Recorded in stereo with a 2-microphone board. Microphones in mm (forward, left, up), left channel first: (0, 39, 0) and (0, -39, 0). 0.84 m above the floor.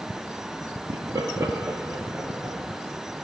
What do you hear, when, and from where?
0.9 s laughter: 60° right (ahead or behind), 1.0 m; by 3.2 s 15° right (ahead or behind), 3 m